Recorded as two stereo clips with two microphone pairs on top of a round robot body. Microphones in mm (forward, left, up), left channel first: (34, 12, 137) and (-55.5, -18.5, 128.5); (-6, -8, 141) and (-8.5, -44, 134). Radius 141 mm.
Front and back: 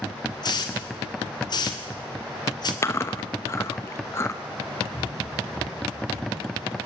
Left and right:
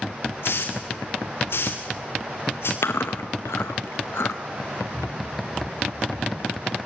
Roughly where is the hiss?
Ahead left.